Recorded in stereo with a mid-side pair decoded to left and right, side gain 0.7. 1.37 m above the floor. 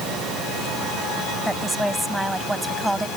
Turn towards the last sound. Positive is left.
turn(degrees=-5)